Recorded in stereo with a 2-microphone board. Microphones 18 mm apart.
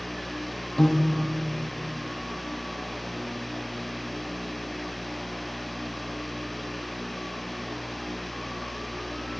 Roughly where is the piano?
Left.